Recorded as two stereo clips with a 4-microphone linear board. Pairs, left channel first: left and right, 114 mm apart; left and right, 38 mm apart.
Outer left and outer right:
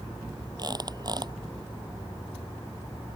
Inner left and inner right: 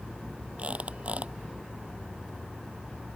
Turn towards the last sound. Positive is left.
turn(degrees=-35)  # may be behind; listen again after turning